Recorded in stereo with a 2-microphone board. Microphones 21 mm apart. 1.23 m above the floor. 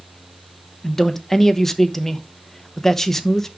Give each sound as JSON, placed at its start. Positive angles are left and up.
{"t": 0.8, "sound": "a man speaking", "side_deg": 20, "distance_m": 0.9}